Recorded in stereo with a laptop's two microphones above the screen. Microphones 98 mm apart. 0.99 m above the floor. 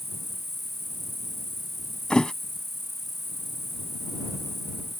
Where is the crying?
No crying in this recording.